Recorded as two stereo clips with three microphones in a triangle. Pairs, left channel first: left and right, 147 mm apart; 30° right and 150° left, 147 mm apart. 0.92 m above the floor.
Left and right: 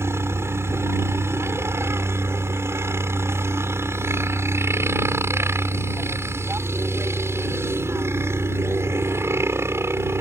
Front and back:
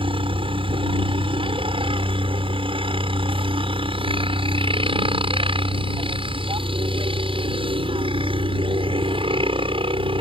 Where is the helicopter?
160° right.